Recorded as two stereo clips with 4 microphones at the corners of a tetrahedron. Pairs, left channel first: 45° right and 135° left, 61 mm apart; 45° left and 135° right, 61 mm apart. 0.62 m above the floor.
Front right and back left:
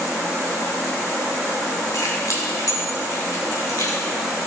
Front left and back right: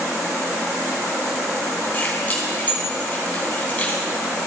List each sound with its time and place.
1.9 s keys jangling: 25° right, 3 m